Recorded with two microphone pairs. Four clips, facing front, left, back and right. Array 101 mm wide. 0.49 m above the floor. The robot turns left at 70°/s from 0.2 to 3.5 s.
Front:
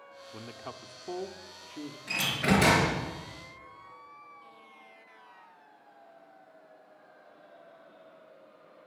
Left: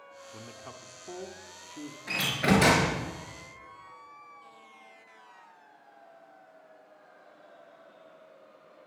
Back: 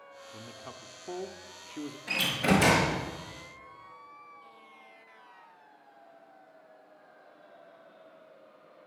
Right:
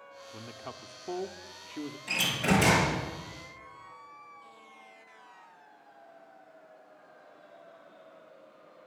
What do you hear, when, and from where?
0.3 s a man speaking: 25° right, 0.8 m; by 2.0 s 140° right, 0.8 m
2.1 s a door slam: 125° left, 5 m; by 2.9 s 65° left, 5 m